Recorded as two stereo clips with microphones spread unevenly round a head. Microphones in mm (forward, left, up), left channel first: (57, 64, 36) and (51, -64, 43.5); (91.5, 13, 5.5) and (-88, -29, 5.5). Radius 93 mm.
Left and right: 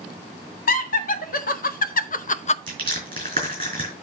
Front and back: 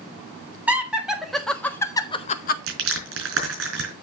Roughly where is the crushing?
Behind right.